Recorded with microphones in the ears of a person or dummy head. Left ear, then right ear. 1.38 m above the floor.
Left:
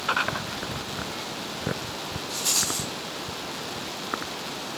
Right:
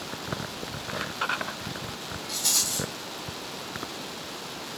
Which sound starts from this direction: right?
A rattle, at 2.3 s.